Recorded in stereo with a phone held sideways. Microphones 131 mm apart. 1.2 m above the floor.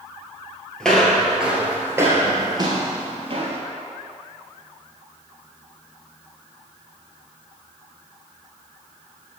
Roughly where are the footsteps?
Centre.